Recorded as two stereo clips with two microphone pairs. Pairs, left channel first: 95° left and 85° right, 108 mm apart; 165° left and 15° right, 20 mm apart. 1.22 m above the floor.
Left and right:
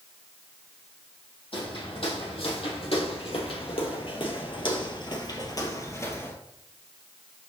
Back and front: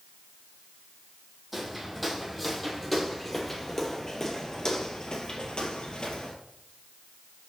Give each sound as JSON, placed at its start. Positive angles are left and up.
{"t": 1.5, "sound": "footsteps", "azimuth_deg": 70, "distance_m": 3.0}